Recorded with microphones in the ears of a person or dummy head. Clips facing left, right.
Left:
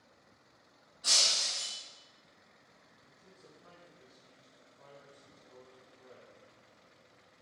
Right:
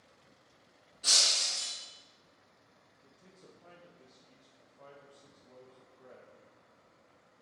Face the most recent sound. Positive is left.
turn(degrees=-50)  # may be behind; listen again after turning